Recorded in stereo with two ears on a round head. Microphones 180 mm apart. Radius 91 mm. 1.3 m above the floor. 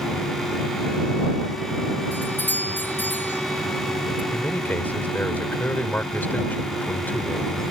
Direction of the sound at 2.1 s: 10° left (ahead or behind).